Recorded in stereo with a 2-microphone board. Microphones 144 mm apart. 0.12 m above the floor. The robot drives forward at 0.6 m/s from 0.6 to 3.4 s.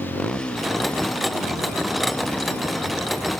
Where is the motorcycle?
5° left (ahead or behind); by 3.4 s 15° left (ahead or behind).